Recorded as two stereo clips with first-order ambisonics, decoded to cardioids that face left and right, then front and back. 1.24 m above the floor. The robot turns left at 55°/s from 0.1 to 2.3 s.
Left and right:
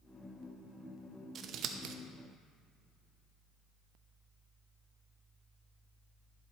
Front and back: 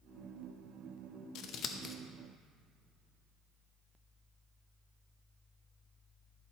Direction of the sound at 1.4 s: 35° right.